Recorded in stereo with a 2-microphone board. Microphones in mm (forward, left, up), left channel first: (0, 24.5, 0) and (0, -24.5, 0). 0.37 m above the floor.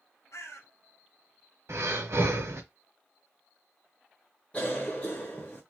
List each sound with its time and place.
0.3 s a bird: 75° left (ahead or behind), 1.5 m
1.7 s breathing: 65° right (ahead or behind), 1.1 m
4.5 s a cough: 25° left (ahead or behind), 0.9 m